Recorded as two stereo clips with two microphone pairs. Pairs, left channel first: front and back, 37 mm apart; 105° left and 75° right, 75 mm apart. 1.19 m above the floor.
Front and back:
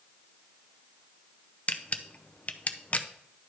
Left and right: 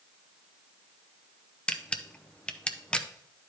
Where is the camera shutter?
35° left, 0.6 m.